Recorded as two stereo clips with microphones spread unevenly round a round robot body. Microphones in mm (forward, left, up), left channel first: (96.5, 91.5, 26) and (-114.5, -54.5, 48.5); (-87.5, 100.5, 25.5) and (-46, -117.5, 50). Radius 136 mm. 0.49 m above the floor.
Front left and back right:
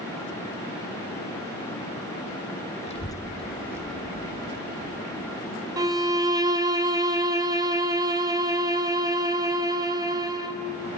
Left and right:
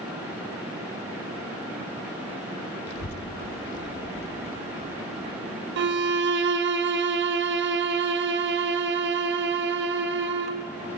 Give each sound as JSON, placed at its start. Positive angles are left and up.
{"t": 2.9, "sound": "a child speaking", "azimuth_deg": 100, "distance_m": 1.2}
{"t": 5.8, "sound": "a violin", "azimuth_deg": -70, "distance_m": 1.4}